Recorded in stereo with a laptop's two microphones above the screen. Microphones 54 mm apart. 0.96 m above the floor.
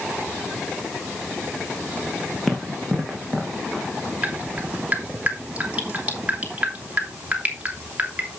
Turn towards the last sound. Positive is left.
turn(degrees=-25)  # may be behind; listen again after turning